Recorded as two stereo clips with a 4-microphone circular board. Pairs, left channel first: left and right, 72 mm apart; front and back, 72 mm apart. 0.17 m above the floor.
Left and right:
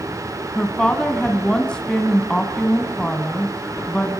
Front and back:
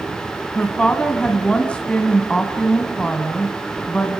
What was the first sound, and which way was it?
A woman speaking, 40° left.